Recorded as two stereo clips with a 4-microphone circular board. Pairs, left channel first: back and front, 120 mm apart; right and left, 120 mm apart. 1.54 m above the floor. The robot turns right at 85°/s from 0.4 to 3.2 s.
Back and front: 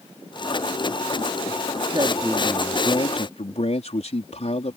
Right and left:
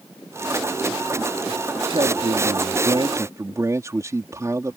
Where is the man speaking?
45° left; by 4.8 s 155° left.